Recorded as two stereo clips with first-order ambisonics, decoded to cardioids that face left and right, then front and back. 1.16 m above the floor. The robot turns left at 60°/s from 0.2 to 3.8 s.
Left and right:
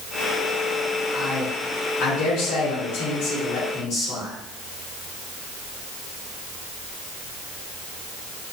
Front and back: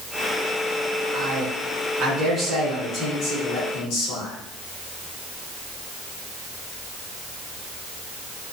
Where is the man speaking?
175° right, 2.5 m; by 4.3 s 25° left, 2.5 m.